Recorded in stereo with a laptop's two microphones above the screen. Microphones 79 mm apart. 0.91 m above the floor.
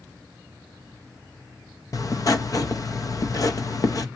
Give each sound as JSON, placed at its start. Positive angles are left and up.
{"t": 1.9, "sound": "writing", "side_deg": 45, "distance_m": 0.7}